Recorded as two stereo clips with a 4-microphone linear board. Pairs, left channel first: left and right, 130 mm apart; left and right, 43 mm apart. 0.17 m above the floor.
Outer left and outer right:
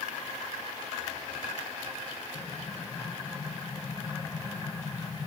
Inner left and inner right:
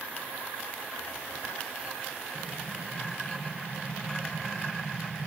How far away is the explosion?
About 3 m.